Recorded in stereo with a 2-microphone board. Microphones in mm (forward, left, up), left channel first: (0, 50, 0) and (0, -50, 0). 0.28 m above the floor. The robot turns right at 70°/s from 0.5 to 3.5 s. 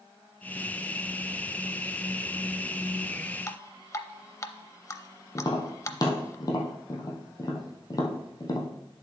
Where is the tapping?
40° left (ahead or behind), 1.7 m.